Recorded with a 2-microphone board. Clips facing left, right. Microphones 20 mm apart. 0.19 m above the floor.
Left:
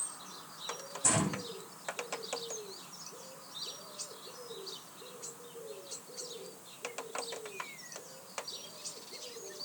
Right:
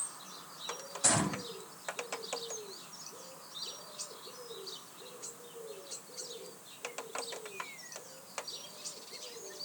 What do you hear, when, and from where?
1.0 s a gunshot: 80° right, 9 m